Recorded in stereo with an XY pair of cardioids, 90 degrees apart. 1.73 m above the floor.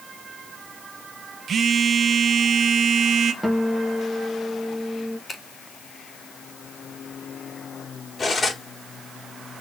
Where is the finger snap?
35° left, 4 m.